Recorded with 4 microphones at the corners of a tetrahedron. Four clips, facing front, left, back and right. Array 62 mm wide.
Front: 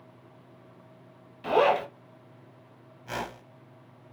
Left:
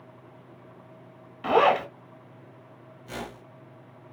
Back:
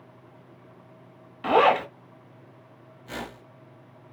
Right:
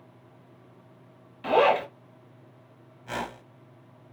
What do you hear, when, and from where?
1.4 s a zipper: 150° left, 1.0 m
3.1 s a whoosh: 55° right, 1.0 m